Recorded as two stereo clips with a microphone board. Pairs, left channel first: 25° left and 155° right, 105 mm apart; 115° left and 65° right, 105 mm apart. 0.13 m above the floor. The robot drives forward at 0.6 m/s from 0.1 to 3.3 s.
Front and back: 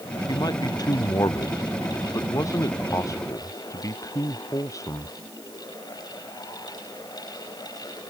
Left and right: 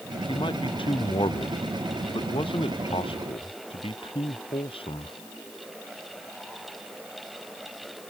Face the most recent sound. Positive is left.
turn(degrees=80)